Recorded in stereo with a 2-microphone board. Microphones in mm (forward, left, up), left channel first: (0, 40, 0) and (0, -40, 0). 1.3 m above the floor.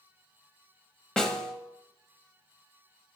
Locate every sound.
1.2 s a snare drum: 10° left (ahead or behind), 1.1 m